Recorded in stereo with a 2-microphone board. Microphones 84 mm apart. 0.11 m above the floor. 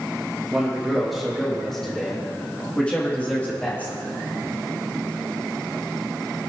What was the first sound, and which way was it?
A man speaking, 5° right (ahead or behind).